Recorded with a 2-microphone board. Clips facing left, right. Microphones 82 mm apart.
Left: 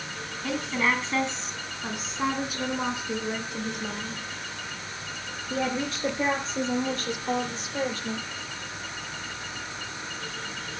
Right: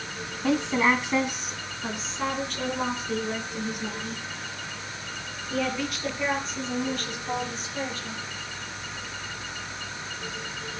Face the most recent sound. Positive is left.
turn(degrees=35)  # may be behind; listen again after turning